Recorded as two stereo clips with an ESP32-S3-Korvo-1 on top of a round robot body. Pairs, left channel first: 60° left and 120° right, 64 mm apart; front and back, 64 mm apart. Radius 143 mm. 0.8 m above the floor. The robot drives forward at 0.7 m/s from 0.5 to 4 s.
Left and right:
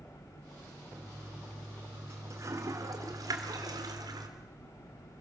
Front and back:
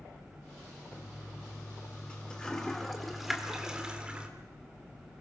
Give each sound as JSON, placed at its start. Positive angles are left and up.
{"t": 0.9, "sound": "a toilet flushing", "azimuth_deg": -60, "distance_m": 3.0}